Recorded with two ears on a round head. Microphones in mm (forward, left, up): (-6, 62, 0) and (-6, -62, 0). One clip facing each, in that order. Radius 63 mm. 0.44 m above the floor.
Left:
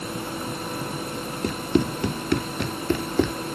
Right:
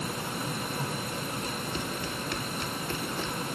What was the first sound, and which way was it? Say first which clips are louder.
Running footsteps: left 11 dB; 50° left (ahead or behind).